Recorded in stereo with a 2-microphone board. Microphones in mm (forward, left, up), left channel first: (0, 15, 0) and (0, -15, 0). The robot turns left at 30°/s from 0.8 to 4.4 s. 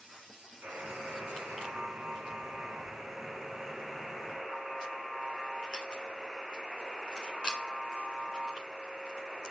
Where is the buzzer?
80° right, 1.9 m; by 9.5 s 175° left, 1.9 m.